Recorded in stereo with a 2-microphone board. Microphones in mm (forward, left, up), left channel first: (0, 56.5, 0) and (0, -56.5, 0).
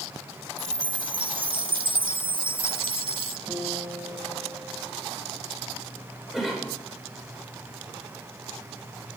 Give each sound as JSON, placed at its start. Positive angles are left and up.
{"t": 0.6, "sound": "a chime", "side_deg": -45, "distance_m": 0.5}
{"t": 3.5, "sound": "a guitar", "side_deg": -25, "distance_m": 7.0}
{"t": 6.3, "sound": "a cough", "side_deg": 0, "distance_m": 6.0}